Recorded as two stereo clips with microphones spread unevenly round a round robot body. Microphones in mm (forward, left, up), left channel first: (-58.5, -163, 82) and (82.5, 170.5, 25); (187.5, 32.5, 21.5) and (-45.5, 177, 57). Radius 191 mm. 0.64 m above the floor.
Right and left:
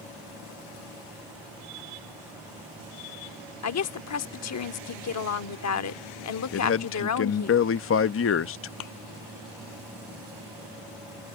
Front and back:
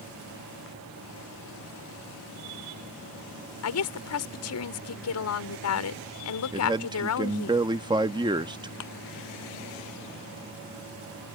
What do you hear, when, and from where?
3.6 s a woman speaking: 65° right
6.5 s a man speaking: 140° right
8.8 s a thud: 75° right